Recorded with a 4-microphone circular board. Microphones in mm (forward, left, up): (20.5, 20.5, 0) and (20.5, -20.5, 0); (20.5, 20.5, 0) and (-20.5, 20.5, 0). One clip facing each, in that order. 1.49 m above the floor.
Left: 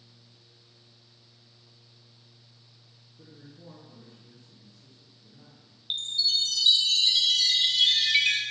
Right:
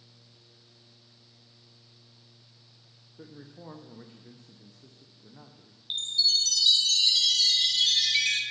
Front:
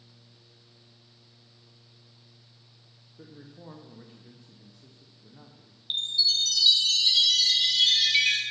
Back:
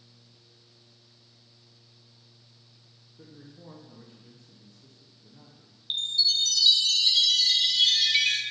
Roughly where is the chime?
Left.